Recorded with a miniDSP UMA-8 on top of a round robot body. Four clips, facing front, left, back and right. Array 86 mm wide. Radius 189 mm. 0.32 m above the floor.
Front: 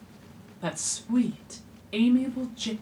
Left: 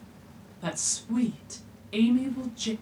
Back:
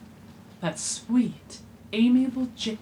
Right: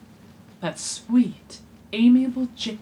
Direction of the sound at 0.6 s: 110° right.